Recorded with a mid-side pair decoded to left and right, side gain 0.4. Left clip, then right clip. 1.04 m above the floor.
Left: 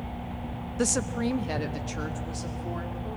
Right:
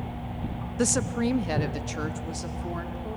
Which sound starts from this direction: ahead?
A woman speaking, at 0.8 s.